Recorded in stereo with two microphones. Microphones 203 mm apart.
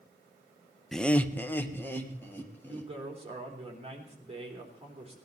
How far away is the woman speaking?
About 3.5 m.